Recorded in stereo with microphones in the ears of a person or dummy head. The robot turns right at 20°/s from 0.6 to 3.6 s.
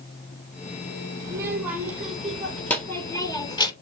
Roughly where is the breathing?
I don't hear breathing.